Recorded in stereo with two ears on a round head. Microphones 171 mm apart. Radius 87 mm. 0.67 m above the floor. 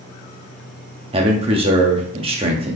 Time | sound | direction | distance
1.1 | a man speaking | 30° right (ahead or behind) | 1.0 m